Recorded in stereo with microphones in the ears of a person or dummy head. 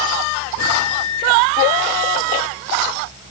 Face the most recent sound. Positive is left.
turn(degrees=80)